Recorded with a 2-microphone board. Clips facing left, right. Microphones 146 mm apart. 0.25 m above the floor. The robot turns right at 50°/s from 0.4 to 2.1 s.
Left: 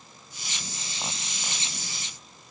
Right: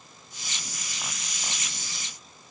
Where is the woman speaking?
I don't hear a woman speaking.